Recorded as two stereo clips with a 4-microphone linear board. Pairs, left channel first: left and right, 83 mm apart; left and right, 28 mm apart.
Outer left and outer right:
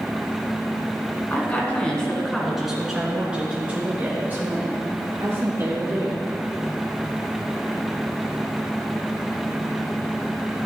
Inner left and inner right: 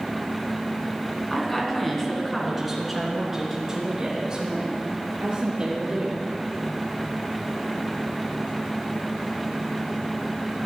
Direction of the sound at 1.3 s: 25° left (ahead or behind).